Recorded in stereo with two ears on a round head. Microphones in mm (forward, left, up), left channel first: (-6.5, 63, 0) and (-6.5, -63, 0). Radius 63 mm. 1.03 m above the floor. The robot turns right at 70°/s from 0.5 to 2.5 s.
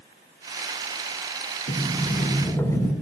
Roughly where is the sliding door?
Left.